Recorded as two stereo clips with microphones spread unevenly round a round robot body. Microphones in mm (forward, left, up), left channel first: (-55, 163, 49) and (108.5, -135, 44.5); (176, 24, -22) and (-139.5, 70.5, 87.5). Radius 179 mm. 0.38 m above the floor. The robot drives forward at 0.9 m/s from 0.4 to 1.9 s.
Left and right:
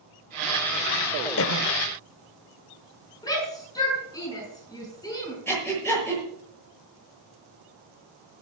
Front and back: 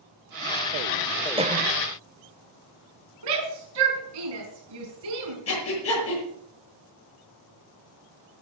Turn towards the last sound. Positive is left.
turn(degrees=35)